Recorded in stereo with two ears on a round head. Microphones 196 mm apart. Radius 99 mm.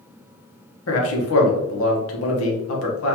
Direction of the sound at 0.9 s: 70° left (ahead or behind).